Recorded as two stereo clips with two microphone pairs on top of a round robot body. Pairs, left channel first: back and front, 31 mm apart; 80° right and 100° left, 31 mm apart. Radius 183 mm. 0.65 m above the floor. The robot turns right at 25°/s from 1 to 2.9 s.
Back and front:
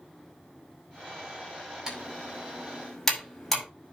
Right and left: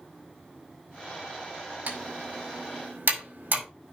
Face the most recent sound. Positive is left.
turn(degrees=105)